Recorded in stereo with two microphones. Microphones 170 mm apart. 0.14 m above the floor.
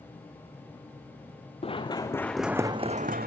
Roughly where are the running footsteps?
Left.